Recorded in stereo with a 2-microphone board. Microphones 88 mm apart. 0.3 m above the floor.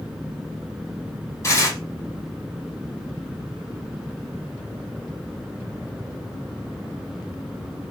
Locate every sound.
1.4 s tearing paper: 40° left (ahead or behind), 2 m